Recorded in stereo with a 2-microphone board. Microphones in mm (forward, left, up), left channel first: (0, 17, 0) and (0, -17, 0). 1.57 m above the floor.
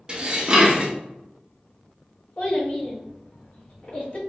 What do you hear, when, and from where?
0.1 s dishes clattering: 25° right (ahead or behind), 0.8 m
2.4 s a child speaking: 40° left (ahead or behind), 1.5 m